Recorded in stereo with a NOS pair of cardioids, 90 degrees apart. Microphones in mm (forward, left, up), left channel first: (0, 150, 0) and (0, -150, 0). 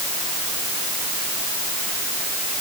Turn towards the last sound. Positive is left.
No sound to turn to.